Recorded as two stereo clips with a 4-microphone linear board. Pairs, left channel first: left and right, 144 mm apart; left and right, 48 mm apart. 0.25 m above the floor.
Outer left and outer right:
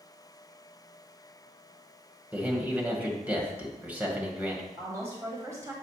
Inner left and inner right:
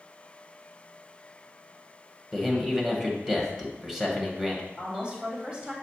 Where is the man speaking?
10° right (ahead or behind), 1.2 m.